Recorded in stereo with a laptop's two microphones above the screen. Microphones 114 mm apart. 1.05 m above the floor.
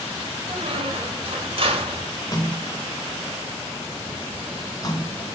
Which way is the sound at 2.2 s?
35° left (ahead or behind).